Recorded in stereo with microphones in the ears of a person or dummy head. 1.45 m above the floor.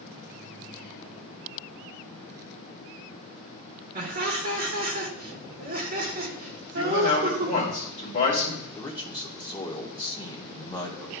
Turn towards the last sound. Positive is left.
turn(degrees=10)  # may be behind; listen again after turning